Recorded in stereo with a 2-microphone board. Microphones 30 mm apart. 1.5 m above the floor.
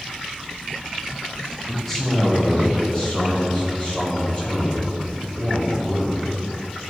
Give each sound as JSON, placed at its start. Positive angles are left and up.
{"t": 1.7, "sound": "a man speaking", "side_deg": -5, "distance_m": 0.8}